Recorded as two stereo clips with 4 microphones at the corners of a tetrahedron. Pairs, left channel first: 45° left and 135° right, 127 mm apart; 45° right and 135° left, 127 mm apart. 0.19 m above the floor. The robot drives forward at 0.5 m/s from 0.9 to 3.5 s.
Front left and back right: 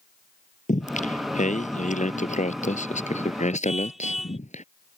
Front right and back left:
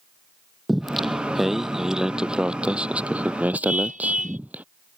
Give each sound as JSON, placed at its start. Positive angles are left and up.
{"t": 0.7, "sound": "singing", "azimuth_deg": 45}
{"t": 3.6, "sound": "a car horn", "azimuth_deg": 135}